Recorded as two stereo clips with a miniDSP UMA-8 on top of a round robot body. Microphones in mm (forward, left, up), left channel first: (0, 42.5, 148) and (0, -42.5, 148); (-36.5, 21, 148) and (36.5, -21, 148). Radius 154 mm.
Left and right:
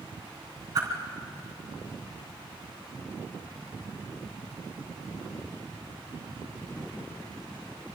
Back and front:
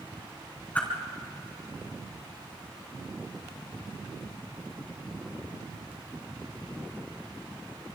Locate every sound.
0.8 s a whoosh: 140° right, 3.5 m